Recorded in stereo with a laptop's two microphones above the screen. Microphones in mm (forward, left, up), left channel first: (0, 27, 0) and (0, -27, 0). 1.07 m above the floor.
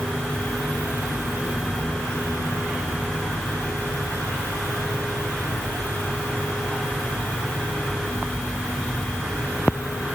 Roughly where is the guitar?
No guitar in this recording.